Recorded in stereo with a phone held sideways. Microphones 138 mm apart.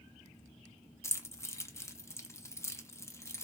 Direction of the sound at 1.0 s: 20° left (ahead or behind).